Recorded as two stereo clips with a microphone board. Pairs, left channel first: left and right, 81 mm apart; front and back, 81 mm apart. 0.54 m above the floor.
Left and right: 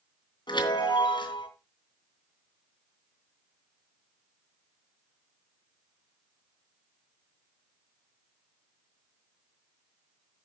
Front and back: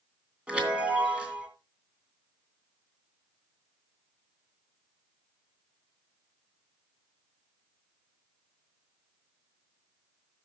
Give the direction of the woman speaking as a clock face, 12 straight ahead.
I don't hear a woman speaking.